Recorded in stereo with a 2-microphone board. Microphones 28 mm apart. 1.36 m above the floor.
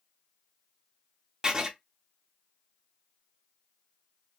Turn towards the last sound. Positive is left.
turn(degrees=-25)  # may be behind; listen again after turning